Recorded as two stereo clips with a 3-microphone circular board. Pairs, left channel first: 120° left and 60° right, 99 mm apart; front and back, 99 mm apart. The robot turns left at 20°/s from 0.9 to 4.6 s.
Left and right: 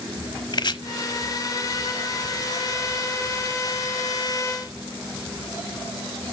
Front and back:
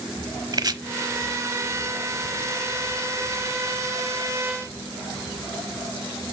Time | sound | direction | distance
0.5 | chopping | 145° left | 0.9 m